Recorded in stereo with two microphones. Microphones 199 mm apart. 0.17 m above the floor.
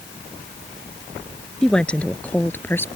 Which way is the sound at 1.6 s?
5° left (ahead or behind).